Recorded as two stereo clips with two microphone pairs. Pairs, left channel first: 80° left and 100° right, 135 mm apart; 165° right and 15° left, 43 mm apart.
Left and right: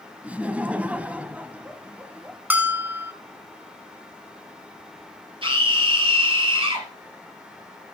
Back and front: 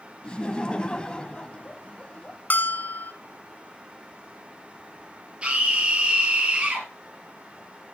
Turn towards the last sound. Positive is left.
turn(degrees=-50)